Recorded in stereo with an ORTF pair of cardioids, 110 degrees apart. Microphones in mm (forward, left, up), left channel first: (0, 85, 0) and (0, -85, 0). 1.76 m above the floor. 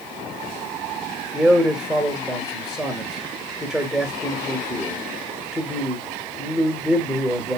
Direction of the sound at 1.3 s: Straight ahead.